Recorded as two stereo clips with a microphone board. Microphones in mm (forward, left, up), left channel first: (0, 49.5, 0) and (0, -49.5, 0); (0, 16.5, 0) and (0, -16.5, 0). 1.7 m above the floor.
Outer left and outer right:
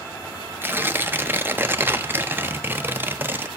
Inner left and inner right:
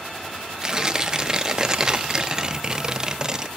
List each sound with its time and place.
0.6 s tearing paper: 20° right (ahead or behind), 0.5 m